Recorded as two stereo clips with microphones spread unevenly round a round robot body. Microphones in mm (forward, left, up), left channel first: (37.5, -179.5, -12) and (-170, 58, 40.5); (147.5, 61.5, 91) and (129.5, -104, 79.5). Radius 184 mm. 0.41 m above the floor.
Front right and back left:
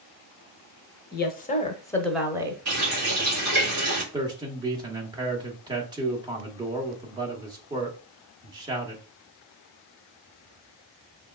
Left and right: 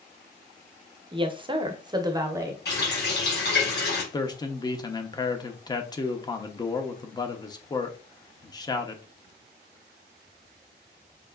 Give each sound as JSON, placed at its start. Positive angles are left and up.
{"t": 1.1, "sound": "a woman speaking", "azimuth_deg": -60, "distance_m": 0.9}
{"t": 2.6, "sound": "a running tap", "azimuth_deg": 65, "distance_m": 3.0}
{"t": 4.1, "sound": "a man speaking", "azimuth_deg": 50, "distance_m": 0.8}